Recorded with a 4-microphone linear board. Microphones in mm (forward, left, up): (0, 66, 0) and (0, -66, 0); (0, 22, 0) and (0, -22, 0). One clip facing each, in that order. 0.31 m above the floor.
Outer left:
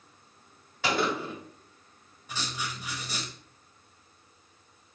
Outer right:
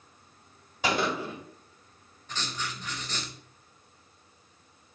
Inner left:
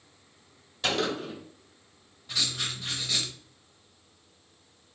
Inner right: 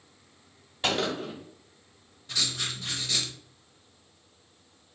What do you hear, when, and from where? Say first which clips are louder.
0.8 s a gunshot: even, even; 20° right (ahead or behind), 1.4 m
2.3 s writing: even, even; 10° left (ahead or behind), 0.5 m